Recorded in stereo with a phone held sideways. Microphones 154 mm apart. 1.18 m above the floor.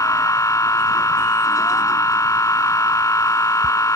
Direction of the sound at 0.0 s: 20° left (ahead or behind).